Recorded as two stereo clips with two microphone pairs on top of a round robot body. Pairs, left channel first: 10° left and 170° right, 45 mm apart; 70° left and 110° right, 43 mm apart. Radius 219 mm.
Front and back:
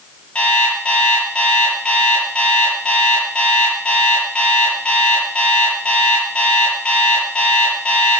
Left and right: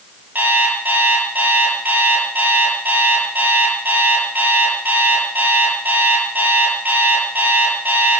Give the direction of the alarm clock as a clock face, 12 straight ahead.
2 o'clock.